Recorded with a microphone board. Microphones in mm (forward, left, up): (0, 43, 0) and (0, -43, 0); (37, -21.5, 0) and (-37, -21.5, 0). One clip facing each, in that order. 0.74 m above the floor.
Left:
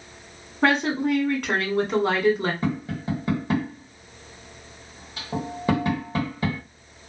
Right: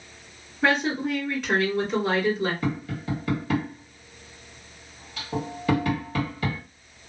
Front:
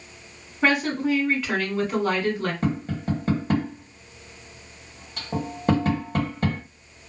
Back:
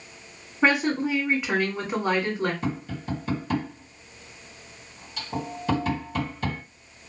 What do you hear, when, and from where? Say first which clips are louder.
0.6 s a woman speaking: left 2 dB, even; 110° left, 1.4 m
2.6 s tapping: left 2 dB, front 4 dB; 30° left, 1.6 m